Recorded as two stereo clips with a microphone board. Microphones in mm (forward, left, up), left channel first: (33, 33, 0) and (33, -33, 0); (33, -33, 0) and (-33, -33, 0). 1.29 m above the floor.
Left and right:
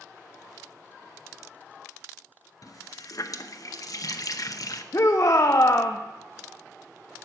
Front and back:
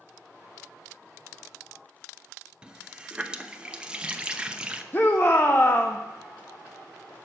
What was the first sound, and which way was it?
A running tap, 105° left.